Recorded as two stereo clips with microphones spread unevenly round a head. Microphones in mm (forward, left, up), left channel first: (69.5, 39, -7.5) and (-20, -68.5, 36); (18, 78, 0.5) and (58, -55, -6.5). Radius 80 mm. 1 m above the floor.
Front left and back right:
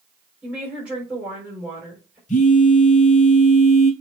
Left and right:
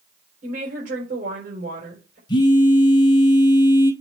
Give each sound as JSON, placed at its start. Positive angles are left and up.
{"t": 0.4, "sound": "a woman speaking", "azimuth_deg": -45, "distance_m": 4.0}
{"t": 2.3, "sound": "a phone buzzing", "azimuth_deg": 50, "distance_m": 1.9}